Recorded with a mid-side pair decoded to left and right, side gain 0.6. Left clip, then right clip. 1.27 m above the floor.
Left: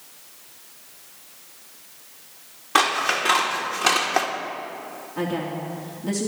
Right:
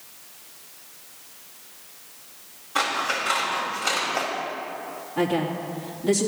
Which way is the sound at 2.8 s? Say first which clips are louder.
Left 4 dB; 70° left.